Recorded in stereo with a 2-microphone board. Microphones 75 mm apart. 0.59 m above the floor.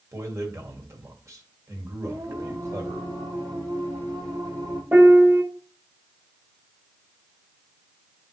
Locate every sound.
0.1 s a man speaking: 40° right (ahead or behind), 2.5 m
2.0 s singing: 45° right (ahead or behind), 5.5 m
4.9 s a piano: 20° right (ahead or behind), 1.2 m